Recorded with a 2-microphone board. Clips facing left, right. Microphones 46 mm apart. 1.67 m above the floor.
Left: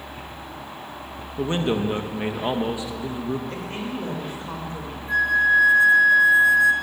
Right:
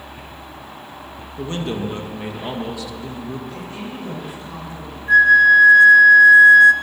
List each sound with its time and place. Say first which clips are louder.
1.4 s a man speaking: left 2 dB; 25° left (ahead or behind), 2.0 m
3.5 s a woman speaking: left 1 dB; 50° left (ahead or behind), 7 m
5.1 s a flute: right 8 dB; 60° right (ahead or behind), 1.3 m